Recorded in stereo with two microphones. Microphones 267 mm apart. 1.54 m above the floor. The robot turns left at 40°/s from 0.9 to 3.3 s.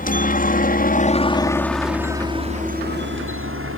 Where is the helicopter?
35° left (ahead or behind); by 3.8 s 55° right (ahead or behind).